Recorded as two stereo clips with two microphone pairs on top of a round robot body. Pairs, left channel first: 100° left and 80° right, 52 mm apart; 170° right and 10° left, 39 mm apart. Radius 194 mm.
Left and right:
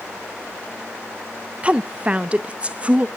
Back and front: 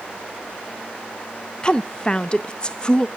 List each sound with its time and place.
1.6 s a woman speaking: 120° right, 0.7 m